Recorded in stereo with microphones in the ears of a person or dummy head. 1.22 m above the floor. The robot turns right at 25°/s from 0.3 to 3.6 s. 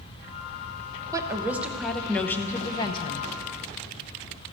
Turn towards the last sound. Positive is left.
turn(degrees=45)